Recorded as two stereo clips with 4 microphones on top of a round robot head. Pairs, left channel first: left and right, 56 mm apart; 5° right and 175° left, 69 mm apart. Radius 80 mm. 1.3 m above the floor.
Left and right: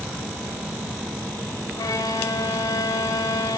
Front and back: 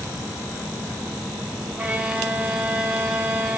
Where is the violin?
100° left, 1.4 m.